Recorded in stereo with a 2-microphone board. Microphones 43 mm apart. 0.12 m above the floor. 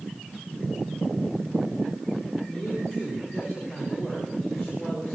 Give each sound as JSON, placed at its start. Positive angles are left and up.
{"t": 2.5, "sound": "a man speaking", "side_deg": -5, "distance_m": 9.5}